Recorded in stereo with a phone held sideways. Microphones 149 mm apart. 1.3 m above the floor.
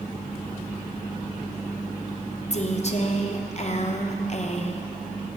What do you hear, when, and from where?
2.5 s a woman speaking: 45° left (ahead or behind), 0.8 m